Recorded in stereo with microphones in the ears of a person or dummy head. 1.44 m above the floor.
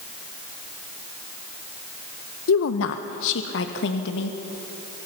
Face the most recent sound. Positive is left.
turn(degrees=65)  # may be behind; listen again after turning